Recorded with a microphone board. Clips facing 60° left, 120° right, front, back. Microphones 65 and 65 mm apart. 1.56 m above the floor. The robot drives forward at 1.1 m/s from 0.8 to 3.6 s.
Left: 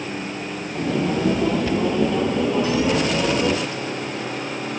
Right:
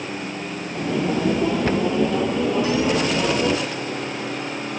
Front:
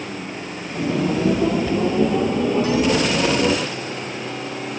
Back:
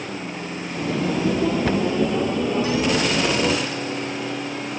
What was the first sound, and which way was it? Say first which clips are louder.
A cupboard door: right 1 dB, front 1 dB; 165° right.